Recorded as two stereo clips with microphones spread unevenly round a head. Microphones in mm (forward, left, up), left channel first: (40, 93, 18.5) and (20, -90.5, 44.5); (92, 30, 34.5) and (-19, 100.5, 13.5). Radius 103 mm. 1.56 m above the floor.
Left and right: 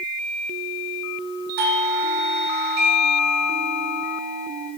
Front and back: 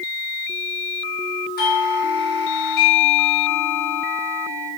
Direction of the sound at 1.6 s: 60° right.